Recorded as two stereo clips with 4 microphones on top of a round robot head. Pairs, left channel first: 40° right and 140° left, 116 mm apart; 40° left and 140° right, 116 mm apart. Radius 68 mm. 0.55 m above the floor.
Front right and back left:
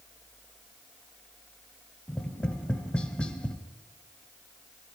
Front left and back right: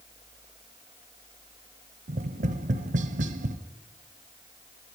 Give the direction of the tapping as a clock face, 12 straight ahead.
4 o'clock.